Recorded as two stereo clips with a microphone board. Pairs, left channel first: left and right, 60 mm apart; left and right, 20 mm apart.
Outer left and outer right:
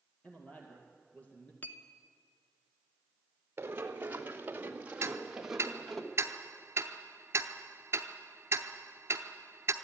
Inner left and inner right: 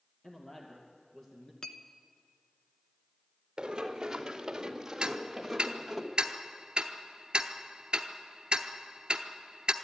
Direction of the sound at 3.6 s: 40° right (ahead or behind).